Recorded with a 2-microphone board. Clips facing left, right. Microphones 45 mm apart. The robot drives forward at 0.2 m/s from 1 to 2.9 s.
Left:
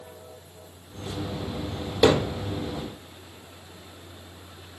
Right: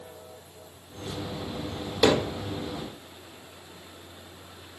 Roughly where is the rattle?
I don't hear a rattle.